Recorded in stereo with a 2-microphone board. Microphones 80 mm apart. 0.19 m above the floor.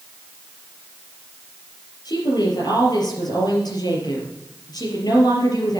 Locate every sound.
2.0 s a woman speaking: 60° left (ahead or behind), 4 m